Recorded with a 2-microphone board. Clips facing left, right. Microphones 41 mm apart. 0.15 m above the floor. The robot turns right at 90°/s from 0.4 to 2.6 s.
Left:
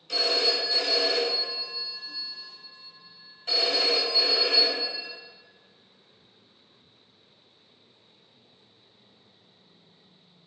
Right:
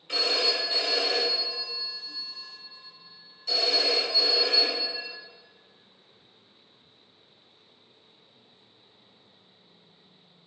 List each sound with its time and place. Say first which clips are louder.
0.1 s a phone ringing: left 1 dB; 85° right, 1.0 m; by 5.1 s 115° left, 1.0 m